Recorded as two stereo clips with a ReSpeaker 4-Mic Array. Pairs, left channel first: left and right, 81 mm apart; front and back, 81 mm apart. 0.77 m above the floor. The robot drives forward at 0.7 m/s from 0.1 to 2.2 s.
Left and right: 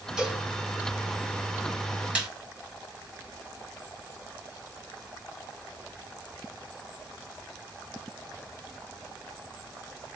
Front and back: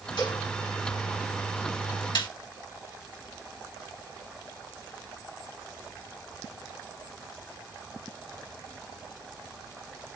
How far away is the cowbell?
About 5 m.